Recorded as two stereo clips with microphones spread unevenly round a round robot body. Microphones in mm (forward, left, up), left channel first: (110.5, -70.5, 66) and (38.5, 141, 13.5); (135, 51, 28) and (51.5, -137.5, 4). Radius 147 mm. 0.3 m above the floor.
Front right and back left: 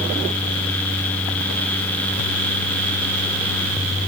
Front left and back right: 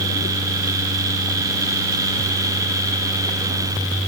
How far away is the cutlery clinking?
I don't hear cutlery clinking.